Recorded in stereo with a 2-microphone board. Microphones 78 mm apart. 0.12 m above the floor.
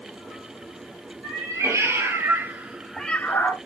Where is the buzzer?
No buzzer in this recording.